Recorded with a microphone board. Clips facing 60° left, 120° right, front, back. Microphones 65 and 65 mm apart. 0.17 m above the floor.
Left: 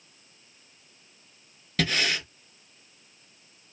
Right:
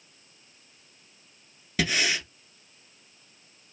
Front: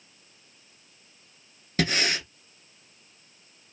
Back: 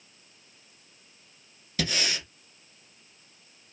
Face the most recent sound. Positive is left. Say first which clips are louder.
# even, front 4 dB
turn(degrees=-40)